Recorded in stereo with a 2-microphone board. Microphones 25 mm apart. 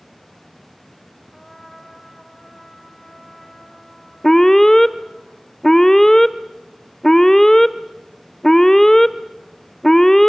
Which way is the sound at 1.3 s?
15° left (ahead or behind).